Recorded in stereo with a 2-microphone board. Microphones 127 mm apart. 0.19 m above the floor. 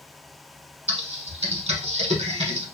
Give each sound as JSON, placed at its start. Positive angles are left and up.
{"t": 0.9, "sound": "typing on a keyboard", "side_deg": -55, "distance_m": 0.7}